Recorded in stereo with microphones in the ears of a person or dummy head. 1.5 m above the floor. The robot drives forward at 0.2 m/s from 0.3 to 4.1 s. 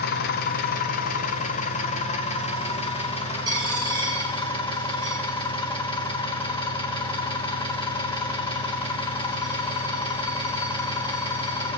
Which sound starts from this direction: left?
An engine running, at 0.0 s.